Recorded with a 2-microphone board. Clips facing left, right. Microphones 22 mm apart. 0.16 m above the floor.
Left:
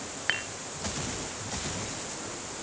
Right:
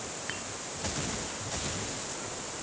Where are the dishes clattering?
40° left (ahead or behind).